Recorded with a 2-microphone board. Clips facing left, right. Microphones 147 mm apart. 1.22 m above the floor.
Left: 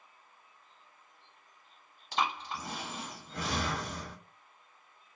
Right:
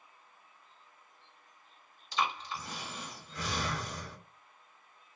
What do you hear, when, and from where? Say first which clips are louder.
2.1 s breathing: left 1 dB; 70° left (ahead or behind), 1.4 m